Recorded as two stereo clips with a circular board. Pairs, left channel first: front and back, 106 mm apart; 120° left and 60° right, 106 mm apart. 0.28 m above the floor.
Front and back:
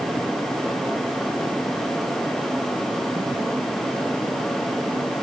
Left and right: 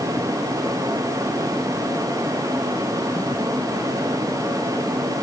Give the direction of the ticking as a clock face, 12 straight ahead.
No ticking in this recording.